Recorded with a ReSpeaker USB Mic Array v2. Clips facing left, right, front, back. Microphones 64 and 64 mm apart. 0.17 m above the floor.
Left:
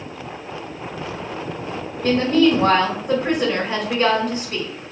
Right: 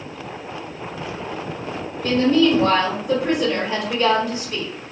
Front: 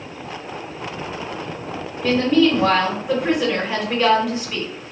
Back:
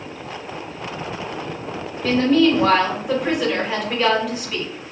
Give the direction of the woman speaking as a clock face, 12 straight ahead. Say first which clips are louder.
Even, even; 9 o'clock.